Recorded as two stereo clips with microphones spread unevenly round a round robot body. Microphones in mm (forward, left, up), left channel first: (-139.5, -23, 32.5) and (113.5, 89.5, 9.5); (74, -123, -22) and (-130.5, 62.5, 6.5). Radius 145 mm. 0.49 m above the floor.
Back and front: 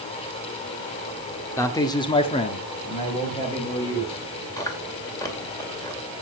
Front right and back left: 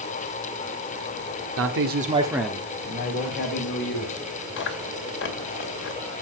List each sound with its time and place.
1.6 s a man speaking: 120° left, 1.6 m; by 4.2 s 80° right, 3.5 m
4.6 s chewing: 75° right, 2 m